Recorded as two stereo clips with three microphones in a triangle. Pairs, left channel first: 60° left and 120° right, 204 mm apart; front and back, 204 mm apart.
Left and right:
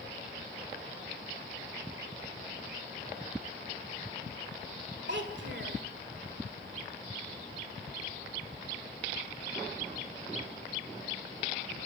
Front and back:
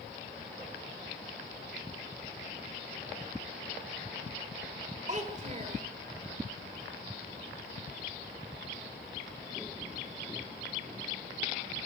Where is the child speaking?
130° right, 1.6 m.